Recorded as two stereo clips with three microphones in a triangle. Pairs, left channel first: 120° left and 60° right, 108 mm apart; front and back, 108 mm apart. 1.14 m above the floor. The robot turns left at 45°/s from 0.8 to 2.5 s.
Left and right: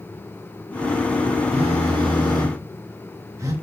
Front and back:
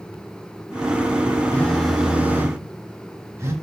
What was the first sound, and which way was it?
A phone buzzing, 75° right.